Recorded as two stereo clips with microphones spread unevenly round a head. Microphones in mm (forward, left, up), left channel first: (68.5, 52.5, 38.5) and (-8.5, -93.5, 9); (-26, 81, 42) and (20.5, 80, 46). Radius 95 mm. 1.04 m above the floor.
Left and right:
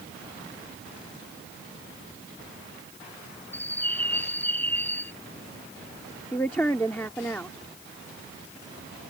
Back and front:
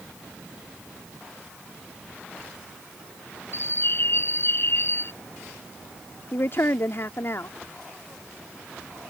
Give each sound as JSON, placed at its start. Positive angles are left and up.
{"t": 3.5, "sound": "a bird", "azimuth_deg": 145}
{"t": 6.3, "sound": "a woman speaking", "azimuth_deg": 145}